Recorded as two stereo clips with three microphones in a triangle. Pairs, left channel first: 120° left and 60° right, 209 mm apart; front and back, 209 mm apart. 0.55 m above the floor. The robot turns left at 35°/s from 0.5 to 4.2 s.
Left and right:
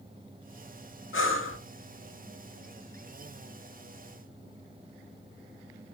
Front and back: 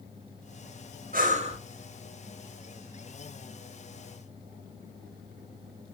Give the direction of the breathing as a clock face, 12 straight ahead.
8 o'clock.